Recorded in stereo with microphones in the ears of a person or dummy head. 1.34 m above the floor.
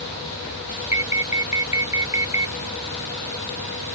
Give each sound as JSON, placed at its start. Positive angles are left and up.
{"t": 0.9, "sound": "an alarm", "side_deg": -10}